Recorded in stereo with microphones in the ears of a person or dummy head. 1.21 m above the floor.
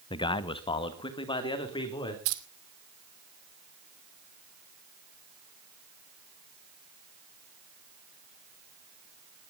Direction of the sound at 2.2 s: 80° right.